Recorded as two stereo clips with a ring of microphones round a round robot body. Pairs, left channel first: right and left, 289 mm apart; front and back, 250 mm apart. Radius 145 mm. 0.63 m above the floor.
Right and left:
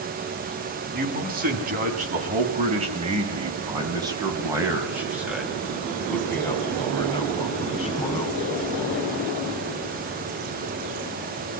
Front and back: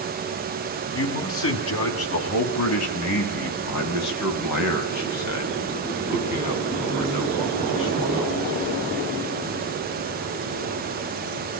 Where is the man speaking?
30° left, 6.5 m; by 8.4 s 25° right, 5 m.